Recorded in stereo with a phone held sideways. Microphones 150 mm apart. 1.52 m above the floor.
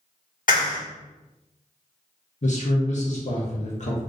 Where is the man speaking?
60° left (ahead or behind), 0.7 m.